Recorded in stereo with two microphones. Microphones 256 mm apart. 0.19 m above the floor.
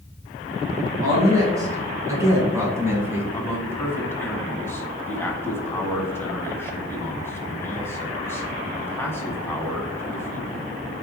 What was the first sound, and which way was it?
A woman speaking, 15° right (ahead or behind).